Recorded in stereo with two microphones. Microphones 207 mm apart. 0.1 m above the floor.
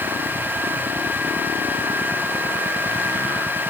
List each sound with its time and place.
Only background noise.